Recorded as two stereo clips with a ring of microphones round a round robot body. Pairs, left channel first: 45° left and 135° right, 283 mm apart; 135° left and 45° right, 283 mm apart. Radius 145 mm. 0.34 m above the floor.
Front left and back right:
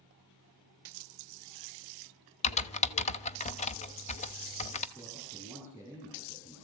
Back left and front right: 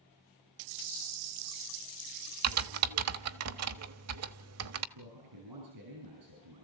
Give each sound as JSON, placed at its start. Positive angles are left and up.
{"t": 2.4, "sound": "typing on a keyboard", "azimuth_deg": -20, "distance_m": 1.1}
{"t": 5.0, "sound": "a man speaking", "azimuth_deg": -35, "distance_m": 7.0}